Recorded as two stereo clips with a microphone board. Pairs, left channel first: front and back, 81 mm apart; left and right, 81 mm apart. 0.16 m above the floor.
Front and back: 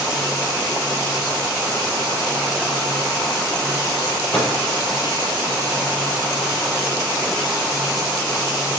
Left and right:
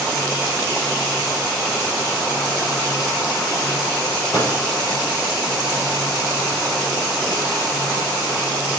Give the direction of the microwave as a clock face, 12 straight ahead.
9 o'clock.